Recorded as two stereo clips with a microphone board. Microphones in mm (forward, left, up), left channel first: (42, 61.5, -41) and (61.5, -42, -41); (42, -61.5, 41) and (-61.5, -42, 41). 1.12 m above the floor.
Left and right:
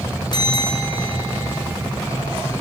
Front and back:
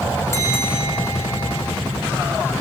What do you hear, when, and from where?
0.3 s a bell: 55° left, 6 m